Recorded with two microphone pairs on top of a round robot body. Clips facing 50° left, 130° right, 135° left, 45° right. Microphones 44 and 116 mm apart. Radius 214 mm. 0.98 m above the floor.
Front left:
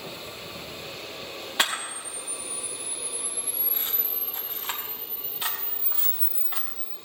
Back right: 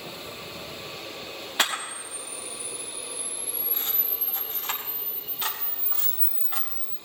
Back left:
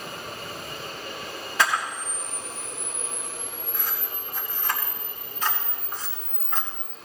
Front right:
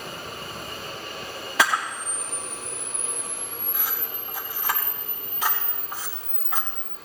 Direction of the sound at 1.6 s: 30° right.